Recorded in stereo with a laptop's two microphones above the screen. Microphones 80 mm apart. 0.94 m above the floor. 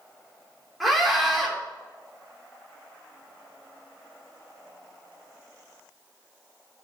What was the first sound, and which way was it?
A scream, centre (ahead or behind).